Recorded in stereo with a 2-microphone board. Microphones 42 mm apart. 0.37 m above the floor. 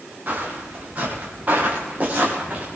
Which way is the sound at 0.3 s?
40° right (ahead or behind).